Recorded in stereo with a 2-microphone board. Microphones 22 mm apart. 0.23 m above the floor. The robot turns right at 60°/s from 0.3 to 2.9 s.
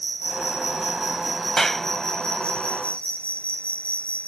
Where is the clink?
No clink in this recording.